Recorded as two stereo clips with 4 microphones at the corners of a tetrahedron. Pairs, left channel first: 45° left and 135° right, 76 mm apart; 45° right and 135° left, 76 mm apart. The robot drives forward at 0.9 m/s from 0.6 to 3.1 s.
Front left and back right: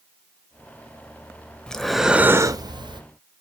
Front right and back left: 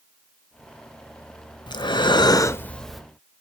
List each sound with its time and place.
1.7 s breathing: 35° right, 0.9 m; by 3.0 s 135° right, 0.7 m